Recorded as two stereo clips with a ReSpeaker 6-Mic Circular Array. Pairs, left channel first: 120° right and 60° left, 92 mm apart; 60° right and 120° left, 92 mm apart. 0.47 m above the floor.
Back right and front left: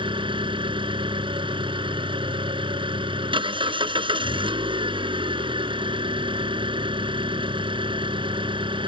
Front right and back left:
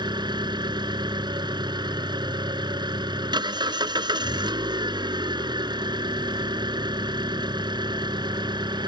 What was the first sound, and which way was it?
An engine running, 80° left.